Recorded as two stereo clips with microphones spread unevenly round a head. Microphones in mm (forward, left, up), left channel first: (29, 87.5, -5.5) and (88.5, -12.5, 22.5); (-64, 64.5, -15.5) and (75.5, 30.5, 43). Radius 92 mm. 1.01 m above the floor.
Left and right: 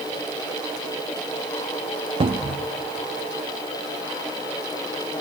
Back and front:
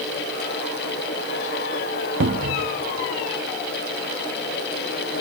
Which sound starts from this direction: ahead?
A cupboard door, at 2.2 s.